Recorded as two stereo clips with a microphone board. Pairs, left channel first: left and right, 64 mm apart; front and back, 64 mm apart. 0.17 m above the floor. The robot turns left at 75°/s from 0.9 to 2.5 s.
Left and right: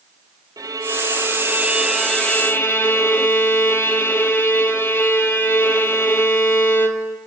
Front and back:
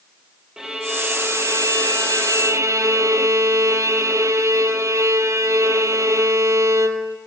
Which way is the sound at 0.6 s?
100° right.